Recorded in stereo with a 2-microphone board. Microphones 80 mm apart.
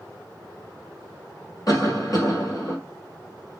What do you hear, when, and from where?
1.7 s a cough: 45° left (ahead or behind), 3 m